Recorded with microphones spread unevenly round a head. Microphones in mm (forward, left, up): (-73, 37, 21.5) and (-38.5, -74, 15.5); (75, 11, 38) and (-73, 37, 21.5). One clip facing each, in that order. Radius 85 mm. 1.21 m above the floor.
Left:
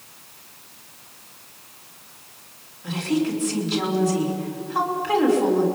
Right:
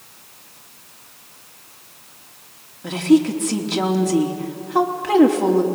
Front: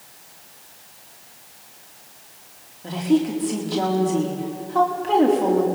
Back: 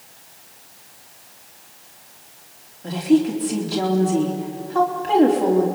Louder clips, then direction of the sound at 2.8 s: Right 8 dB, back 3 dB; 100° right.